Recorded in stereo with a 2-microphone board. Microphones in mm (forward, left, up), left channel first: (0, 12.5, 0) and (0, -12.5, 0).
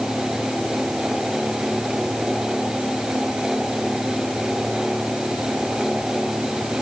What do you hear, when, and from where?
Only background noise.